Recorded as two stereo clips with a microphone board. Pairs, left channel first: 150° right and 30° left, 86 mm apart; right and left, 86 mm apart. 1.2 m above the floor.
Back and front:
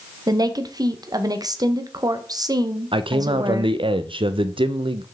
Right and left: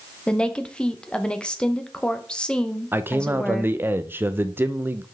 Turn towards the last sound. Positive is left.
turn(degrees=25)